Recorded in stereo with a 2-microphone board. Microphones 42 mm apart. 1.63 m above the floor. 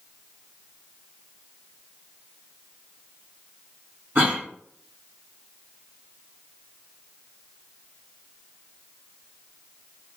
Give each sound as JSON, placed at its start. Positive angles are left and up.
{"t": 4.2, "sound": "a cough", "side_deg": -55, "distance_m": 1.3}